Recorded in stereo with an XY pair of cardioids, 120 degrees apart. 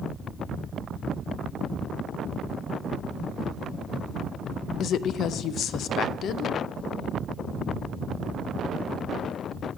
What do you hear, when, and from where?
4.8 s a woman speaking: 60° left, 0.5 m